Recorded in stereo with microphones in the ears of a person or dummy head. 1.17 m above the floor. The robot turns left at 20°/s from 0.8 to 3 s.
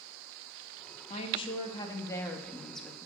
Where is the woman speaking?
40° left, 1.4 m; by 3.1 s straight ahead, 1.4 m.